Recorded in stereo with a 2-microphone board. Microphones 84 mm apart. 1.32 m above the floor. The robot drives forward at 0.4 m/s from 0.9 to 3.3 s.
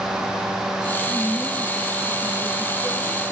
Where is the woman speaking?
15° left (ahead or behind), 6.5 m.